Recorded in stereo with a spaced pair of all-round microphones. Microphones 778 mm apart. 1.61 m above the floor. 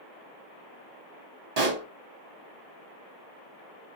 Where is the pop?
50° right (ahead or behind), 1.1 m.